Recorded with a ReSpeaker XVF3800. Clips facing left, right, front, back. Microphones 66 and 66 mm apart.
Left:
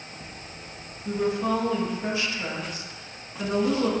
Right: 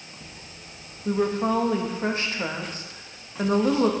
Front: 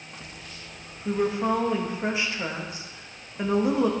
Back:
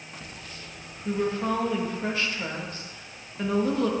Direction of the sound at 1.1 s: 65° right.